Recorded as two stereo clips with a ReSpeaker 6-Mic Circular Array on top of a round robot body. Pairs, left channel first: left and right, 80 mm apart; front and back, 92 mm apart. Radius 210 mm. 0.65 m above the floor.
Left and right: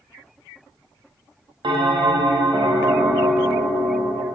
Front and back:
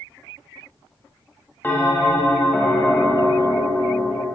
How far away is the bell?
About 1.0 m.